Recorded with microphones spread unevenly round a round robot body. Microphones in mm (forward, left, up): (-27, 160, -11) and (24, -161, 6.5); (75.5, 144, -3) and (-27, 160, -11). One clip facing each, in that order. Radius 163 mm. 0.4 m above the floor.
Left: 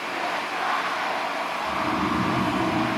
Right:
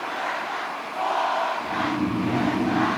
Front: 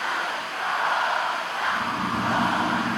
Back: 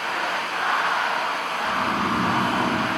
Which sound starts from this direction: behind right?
Snoring, at 1.6 s.